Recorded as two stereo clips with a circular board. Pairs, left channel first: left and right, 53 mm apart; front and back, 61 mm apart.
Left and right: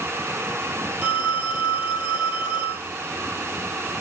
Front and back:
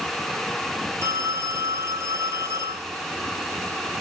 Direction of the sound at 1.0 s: 145° right.